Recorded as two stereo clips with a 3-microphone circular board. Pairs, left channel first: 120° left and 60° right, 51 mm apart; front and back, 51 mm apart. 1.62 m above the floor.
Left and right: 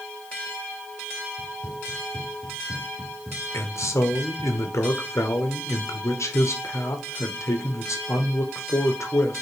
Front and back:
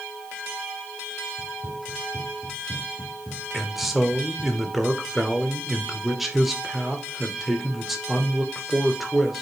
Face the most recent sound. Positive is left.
turn(degrees=95)